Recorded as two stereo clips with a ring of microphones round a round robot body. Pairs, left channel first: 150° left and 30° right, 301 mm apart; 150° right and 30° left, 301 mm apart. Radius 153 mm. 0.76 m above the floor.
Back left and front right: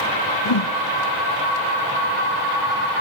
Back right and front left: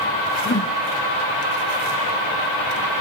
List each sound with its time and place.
0.5 s a whoosh: 150° left, 0.5 m